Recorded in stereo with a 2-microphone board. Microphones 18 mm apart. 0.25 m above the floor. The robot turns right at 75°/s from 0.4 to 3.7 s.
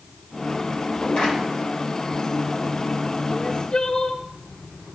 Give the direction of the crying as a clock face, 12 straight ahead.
9 o'clock.